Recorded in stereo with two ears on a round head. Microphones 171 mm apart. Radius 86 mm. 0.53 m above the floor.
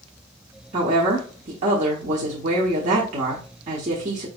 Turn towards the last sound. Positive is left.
turn(degrees=-40)  # may be behind; listen again after turning